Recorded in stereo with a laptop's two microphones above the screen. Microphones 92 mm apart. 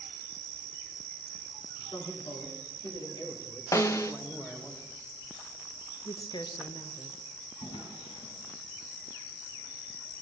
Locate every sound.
1.8 s a man speaking: 70° left (ahead or behind), 3.5 m; by 4.7 s 5° left (ahead or behind), 1.6 m
3.7 s a snare drum: 35° left (ahead or behind), 0.9 m
6.0 s a woman speaking: 60° left (ahead or behind), 1.0 m
7.6 s a drawer: 80° left, 4 m